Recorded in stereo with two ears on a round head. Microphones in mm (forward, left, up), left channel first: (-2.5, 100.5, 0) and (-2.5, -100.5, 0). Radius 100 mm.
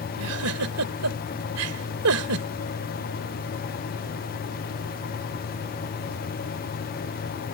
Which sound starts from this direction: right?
A giggle, at 0.2 s.